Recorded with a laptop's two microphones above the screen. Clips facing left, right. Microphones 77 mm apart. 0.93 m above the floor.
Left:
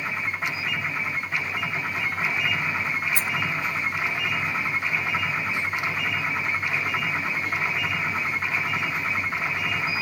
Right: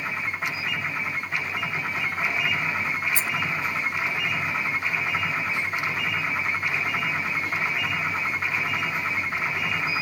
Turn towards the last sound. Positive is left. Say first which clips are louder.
# even
turn(degrees=55)  # may be behind; listen again after turning